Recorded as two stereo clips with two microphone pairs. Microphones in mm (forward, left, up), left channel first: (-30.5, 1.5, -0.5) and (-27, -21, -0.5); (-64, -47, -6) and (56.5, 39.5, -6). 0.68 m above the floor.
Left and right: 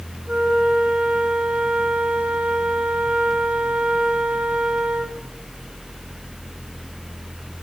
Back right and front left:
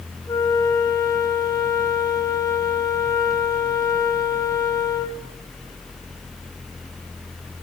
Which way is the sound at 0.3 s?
80° right.